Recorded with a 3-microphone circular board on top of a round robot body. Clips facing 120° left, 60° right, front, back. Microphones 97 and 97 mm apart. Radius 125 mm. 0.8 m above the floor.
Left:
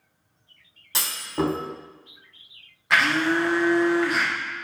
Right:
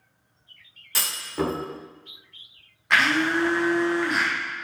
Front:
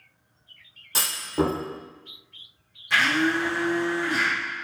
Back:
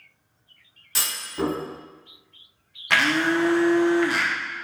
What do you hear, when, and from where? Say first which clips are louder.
0.9 s a clunk: left 1 dB, front 4 dB; 50° left, 3 m
2.9 s a blender: even, back 1 dB; 155° right, 1.0 m